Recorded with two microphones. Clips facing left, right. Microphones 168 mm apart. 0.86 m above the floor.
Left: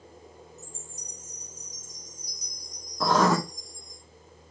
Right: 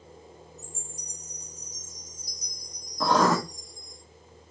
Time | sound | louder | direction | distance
0.6 | a chime | right 1 dB | 20° left (ahead or behind) | 2.5 m
3.0 | writing | even | centre (ahead or behind) | 0.9 m